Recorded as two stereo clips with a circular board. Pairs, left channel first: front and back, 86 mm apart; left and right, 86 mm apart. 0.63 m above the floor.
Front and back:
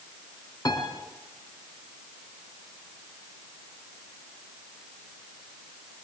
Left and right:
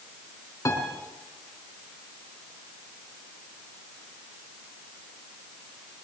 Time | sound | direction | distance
0.7 | a piano | 40° left | 3.5 m